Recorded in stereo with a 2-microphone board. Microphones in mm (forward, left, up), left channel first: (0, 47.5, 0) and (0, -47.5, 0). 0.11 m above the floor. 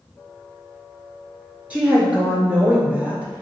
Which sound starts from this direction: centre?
A woman speaking, at 1.7 s.